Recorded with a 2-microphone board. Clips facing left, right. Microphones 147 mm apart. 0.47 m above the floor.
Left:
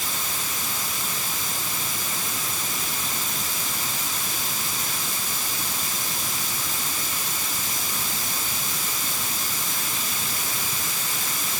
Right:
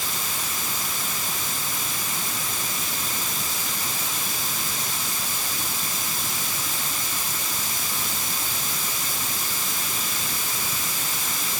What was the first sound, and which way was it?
Only background noise.